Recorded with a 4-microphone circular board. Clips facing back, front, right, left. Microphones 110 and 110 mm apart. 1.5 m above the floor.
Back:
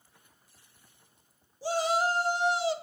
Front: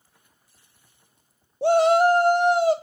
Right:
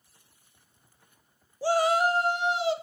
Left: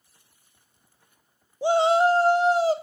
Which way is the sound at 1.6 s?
20° left.